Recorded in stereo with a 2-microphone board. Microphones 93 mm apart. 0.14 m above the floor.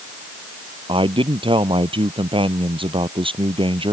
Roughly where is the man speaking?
Right.